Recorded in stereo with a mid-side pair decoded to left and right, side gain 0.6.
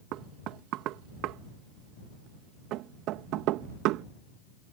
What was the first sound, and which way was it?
Knocking, 70° right.